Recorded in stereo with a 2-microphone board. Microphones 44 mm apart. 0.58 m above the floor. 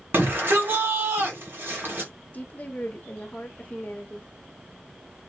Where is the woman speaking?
35° left (ahead or behind), 1.1 m.